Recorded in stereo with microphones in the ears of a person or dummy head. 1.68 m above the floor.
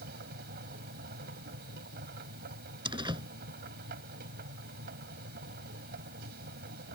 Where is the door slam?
20° right (ahead or behind).